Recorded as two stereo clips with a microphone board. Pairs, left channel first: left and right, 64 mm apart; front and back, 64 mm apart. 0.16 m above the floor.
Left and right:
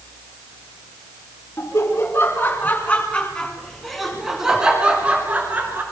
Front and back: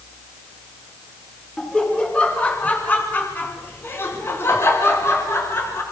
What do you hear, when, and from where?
1.6 s laughter: 70° left, 2.5 m; by 5.8 s 40° right, 2.5 m